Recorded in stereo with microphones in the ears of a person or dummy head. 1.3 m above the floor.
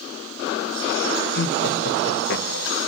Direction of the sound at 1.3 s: 60° left (ahead or behind).